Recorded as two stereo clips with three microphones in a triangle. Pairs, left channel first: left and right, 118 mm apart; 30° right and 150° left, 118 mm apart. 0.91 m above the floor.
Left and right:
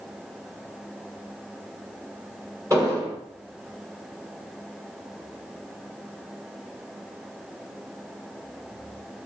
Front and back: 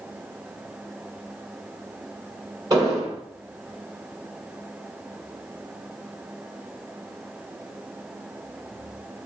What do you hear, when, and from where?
2.7 s an explosion: 155° right, 2.5 m